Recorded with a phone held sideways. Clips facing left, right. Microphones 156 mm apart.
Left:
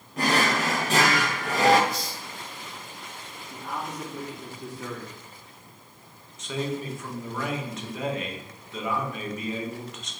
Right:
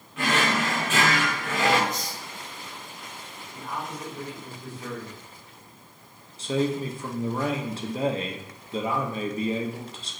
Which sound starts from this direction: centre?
A hiss, at 1.9 s.